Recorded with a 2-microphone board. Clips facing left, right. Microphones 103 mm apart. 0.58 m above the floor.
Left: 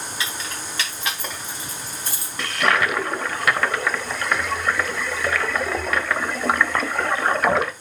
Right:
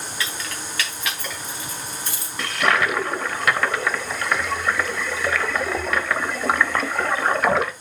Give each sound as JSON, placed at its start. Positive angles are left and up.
{"t": 0.2, "sound": "keys jangling", "side_deg": 20, "distance_m": 3.5}
{"t": 2.4, "sound": "a toilet flushing", "side_deg": 0, "distance_m": 0.8}